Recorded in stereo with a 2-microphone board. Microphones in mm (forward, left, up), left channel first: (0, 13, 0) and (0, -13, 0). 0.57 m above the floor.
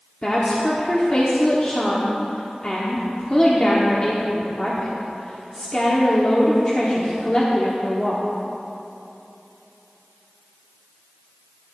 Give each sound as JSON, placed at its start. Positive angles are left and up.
{"t": 0.2, "sound": "a woman speaking", "side_deg": 30, "distance_m": 1.3}